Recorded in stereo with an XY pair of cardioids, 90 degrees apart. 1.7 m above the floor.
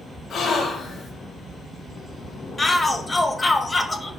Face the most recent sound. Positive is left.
turn(degrees=25)